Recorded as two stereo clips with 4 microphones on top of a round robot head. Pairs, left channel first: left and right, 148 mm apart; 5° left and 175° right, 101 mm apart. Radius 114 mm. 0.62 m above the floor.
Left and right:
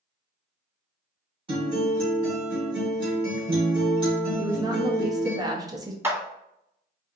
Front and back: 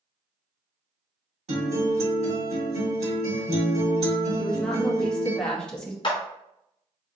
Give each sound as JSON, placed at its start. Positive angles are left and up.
{"t": 1.5, "sound": "a guitar", "azimuth_deg": -150, "distance_m": 1.8}
{"t": 4.4, "sound": "a woman speaking", "azimuth_deg": -65, "distance_m": 1.0}
{"t": 6.0, "sound": "a clap", "azimuth_deg": -20, "distance_m": 1.3}